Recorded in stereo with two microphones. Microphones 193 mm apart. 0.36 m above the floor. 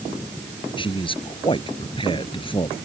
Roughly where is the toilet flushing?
I don't hear a toilet flushing.